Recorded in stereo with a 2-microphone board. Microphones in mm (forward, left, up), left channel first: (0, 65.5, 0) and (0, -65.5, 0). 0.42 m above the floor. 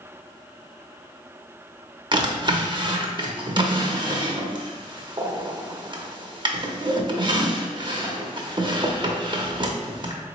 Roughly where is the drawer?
Right.